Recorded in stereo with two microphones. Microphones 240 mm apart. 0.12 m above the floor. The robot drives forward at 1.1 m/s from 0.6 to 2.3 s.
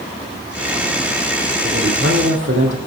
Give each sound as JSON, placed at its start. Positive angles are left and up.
{"t": 1.6, "sound": "a man speaking", "side_deg": -50, "distance_m": 6.0}